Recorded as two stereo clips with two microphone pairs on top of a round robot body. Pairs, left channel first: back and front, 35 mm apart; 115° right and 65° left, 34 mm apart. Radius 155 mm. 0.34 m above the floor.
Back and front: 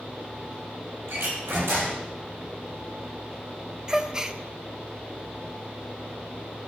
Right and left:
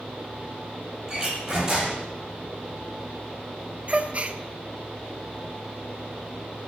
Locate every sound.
1.1 s a door slam: 5° right, 9 m
3.9 s a gasp: 60° left, 1.7 m